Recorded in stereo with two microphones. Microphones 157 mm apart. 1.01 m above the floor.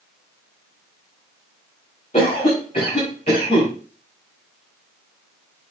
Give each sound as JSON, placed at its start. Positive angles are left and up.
{"t": 2.1, "sound": "a cough", "side_deg": 45, "distance_m": 5.0}